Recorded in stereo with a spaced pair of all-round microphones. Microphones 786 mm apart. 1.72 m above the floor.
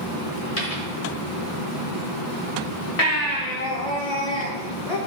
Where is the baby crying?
45° left (ahead or behind), 1.6 m.